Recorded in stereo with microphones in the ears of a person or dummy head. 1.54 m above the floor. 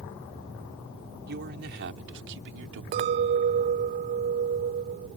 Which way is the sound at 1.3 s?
60° right (ahead or behind).